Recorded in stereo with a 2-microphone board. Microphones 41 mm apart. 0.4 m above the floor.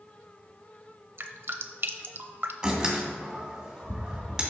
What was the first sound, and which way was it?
Dripping, 60° right (ahead or behind).